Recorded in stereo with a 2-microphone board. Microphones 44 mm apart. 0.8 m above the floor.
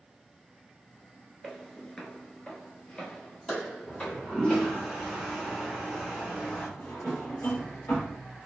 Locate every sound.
1.4 s footsteps: 5° left (ahead or behind), 0.8 m; by 4.7 s 20° left (ahead or behind), 2 m
3.9 s a toilet flushing: 10° right (ahead or behind), 1.5 m
6.8 s a drawer: 60° left (ahead or behind), 1.1 m